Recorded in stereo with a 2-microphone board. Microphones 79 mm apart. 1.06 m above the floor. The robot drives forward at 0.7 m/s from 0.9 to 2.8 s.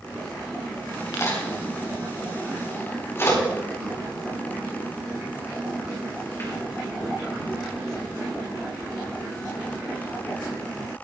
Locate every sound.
1.1 s a crack: 40° left (ahead or behind), 5.5 m; by 6.5 s 35° left (ahead or behind), 6.5 m